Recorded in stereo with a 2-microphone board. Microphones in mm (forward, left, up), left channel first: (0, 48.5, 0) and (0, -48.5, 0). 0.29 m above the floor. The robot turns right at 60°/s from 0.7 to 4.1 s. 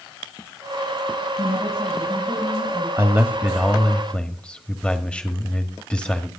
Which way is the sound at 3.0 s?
50° right.